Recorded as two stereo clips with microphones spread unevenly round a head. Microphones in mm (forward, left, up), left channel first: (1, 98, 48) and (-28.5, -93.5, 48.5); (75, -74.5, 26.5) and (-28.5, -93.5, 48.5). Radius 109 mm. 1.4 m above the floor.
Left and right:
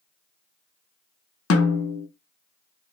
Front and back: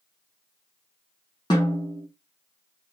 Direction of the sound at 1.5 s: 80° left.